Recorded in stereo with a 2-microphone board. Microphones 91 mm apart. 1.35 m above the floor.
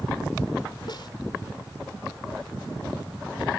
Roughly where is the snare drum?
Left.